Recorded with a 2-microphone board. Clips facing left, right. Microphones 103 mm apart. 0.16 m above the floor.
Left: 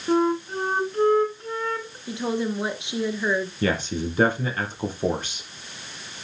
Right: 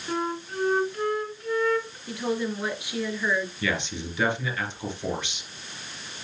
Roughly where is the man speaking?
Left.